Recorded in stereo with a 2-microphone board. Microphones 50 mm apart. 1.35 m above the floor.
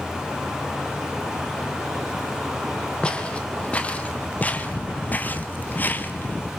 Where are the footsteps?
25° left (ahead or behind), 2.5 m; by 6.5 s 40° left (ahead or behind), 1.7 m.